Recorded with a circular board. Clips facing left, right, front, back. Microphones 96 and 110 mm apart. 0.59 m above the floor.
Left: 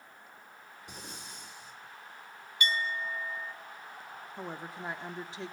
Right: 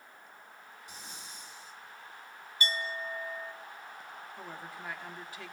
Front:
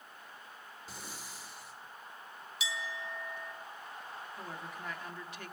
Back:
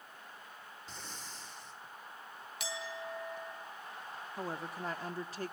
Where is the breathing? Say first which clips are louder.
Left 3 dB, front 1 dB; 80° left, 2 m.